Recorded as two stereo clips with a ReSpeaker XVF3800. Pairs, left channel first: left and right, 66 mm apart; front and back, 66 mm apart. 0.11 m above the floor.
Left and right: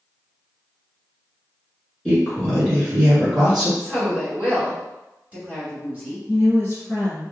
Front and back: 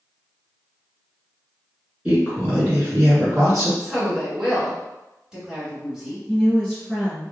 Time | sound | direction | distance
2.0 | a woman speaking | 135° left | 1.5 m
3.8 | a woman speaking | 120° right | 1.5 m
6.3 | a woman speaking | 100° left | 1.8 m